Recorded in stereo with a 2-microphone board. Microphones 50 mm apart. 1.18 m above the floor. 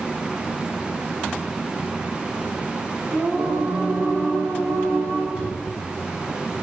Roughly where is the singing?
Right.